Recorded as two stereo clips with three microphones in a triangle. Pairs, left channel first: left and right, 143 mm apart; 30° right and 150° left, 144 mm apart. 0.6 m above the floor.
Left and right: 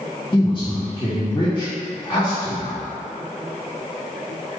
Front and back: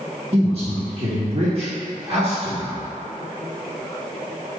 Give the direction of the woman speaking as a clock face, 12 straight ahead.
8 o'clock.